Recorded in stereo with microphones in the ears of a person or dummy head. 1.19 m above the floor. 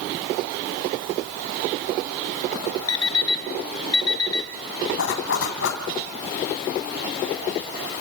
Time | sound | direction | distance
2.9 | an alarm clock | 25° left (ahead or behind) | 1.0 m
5.0 | a zipper | 70° left (ahead or behind) | 2.5 m